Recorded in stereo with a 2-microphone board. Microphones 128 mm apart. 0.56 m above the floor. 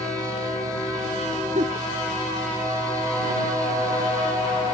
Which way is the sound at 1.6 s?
65° right (ahead or behind).